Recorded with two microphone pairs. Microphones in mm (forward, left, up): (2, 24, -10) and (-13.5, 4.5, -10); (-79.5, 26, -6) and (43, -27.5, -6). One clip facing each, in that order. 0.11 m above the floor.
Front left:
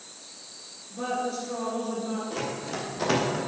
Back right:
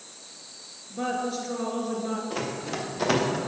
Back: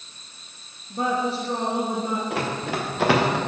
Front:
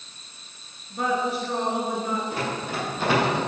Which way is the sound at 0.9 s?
170° right.